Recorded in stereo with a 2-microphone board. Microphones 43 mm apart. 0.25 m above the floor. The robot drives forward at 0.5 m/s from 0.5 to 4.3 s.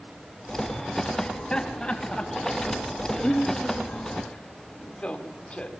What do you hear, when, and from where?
1.2 s laughter: 20° left (ahead or behind), 1.7 m; by 5.7 s 25° left (ahead or behind), 1.4 m